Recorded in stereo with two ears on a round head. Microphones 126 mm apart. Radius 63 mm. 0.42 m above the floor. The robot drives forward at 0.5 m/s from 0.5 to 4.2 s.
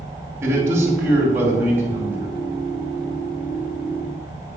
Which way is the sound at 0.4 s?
20° right (ahead or behind).